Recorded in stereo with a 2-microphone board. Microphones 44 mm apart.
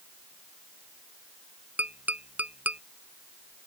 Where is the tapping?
40° right (ahead or behind).